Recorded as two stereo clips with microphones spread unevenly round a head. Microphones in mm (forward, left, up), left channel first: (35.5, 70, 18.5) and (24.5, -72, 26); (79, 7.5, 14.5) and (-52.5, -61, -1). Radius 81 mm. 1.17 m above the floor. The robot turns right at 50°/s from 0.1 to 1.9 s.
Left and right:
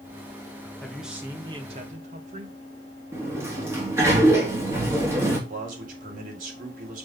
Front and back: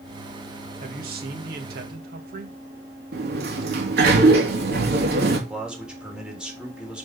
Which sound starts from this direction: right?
A man speaking, at 5.5 s.